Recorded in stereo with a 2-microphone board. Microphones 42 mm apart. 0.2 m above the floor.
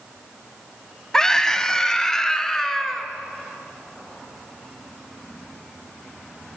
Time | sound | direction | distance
1.1 | a scream | 15° left (ahead or behind) | 1.1 m